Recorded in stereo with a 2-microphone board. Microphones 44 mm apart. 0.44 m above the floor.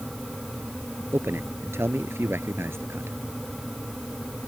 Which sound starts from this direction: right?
A man speaking, at 1.1 s.